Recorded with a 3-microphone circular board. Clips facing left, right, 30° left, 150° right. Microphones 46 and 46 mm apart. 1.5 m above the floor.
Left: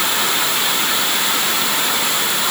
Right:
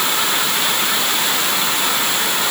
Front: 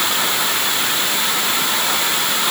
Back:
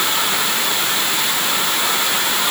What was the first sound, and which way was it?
Only background noise.